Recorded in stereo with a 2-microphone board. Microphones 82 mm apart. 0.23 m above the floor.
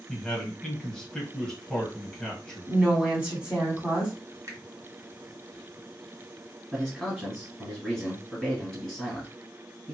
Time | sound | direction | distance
0.1 | a man speaking | 5° left (ahead or behind) | 1.4 m
2.7 | a woman speaking | 15° right (ahead or behind) | 1.8 m
4.5 | a finger snap | 40° right (ahead or behind) | 1.2 m
6.7 | a man speaking | 5° right (ahead or behind) | 1.4 m